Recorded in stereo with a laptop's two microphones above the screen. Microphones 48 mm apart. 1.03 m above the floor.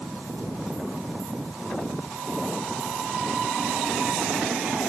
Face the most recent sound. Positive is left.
No sound to turn to.